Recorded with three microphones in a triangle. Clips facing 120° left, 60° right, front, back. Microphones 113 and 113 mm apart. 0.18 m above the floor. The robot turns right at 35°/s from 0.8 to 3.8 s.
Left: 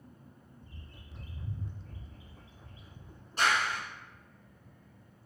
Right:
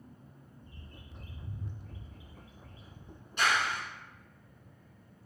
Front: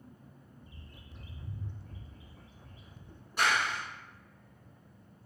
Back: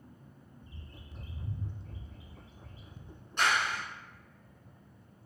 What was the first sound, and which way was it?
A bird, 120° left.